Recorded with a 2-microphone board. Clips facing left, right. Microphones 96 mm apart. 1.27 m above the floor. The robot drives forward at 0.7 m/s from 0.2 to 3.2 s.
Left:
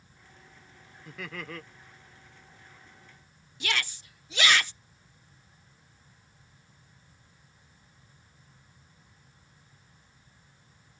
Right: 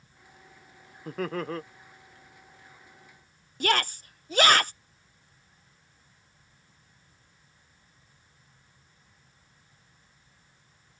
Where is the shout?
40° right (ahead or behind).